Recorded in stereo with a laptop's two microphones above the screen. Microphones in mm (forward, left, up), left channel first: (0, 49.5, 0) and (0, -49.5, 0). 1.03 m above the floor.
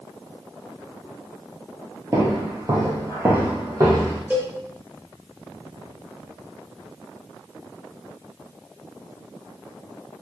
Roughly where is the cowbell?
Centre.